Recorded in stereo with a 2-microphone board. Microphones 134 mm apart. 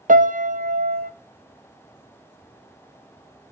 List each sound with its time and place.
0.1 s a piano: 75° right (ahead or behind), 0.9 m